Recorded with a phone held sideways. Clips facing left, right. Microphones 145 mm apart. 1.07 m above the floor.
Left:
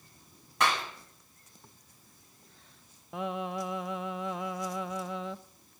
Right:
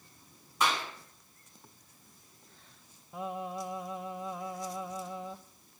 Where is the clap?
65° left (ahead or behind), 7 m.